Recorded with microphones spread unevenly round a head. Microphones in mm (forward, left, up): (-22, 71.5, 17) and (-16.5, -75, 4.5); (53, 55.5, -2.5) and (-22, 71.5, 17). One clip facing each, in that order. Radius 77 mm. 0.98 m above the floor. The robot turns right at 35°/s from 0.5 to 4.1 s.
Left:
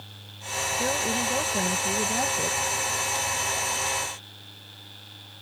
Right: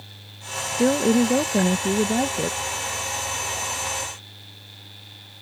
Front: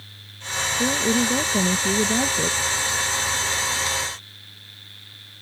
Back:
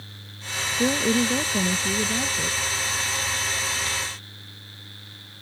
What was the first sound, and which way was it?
A woman speaking, 100° right.